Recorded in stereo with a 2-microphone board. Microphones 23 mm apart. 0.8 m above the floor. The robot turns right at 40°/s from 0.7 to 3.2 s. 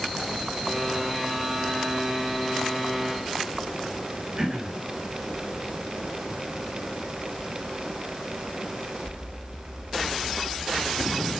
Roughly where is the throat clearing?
Right.